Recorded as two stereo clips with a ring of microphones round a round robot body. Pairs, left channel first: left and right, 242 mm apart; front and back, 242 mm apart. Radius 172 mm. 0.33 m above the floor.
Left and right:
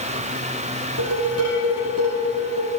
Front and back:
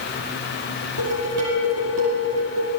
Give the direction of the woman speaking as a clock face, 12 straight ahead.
I don't hear a woman speaking.